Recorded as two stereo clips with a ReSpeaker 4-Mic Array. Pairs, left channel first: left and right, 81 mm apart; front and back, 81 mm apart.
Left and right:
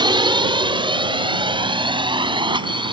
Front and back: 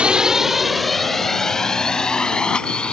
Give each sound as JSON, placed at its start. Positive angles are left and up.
{"t": 0.0, "sound": "a drone", "azimuth_deg": -105}